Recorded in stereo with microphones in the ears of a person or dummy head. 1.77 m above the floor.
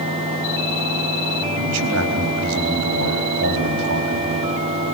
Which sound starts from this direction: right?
A man speaking, at 1.6 s.